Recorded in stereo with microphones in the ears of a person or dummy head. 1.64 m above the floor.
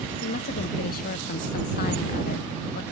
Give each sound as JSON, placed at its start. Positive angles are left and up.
{"t": 0.2, "sound": "a woman speaking", "side_deg": 50}